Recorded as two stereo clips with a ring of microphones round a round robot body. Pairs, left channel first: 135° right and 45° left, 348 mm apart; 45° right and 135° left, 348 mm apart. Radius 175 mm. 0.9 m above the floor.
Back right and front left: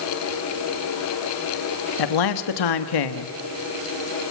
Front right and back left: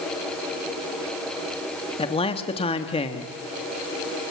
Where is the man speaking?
120° right, 1.6 m.